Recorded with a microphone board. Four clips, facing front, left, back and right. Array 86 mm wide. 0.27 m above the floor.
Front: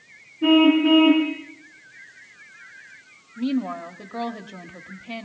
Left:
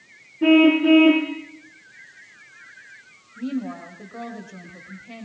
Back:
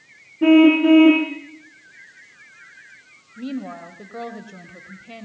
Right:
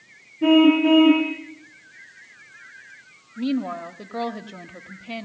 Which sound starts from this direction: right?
A woman speaking, at 3.4 s.